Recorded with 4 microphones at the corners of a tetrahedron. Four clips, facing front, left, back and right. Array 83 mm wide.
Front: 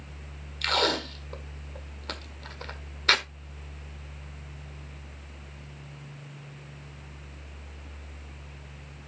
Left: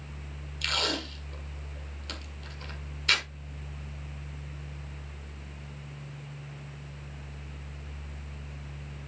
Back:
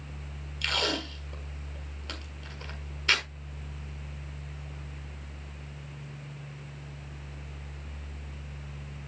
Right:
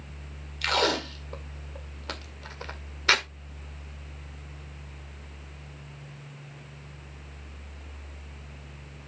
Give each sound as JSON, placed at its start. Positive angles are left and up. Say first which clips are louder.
{"t": 0.6, "sound": "tape being pulled", "louder": "right 6 dB, front 4 dB", "azimuth_deg": -55, "distance_m": 1.6}